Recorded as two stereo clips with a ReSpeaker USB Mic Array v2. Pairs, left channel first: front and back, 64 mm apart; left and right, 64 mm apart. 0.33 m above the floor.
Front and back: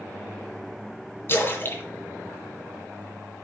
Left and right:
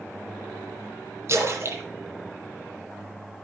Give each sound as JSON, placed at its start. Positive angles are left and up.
{"t": 1.3, "sound": "a splash", "azimuth_deg": -55, "distance_m": 3.0}